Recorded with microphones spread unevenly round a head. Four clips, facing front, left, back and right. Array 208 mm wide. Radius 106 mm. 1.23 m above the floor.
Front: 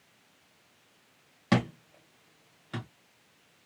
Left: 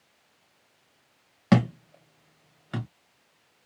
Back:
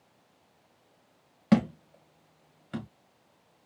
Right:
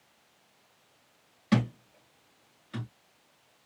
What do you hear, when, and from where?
1.5 s a thud: 100° left, 1.0 m